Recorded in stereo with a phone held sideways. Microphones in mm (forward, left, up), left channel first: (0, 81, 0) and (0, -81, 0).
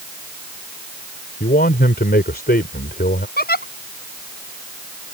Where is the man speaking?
70° left (ahead or behind).